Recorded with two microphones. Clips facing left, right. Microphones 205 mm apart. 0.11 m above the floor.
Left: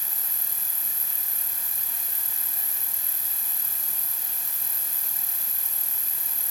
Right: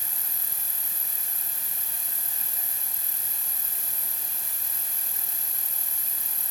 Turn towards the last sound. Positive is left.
turn(degrees=-30)  # may be behind; listen again after turning